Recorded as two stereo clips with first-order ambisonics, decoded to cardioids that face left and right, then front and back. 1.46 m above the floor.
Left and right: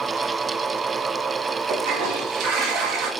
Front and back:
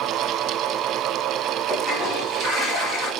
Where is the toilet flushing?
110° right, 5 m.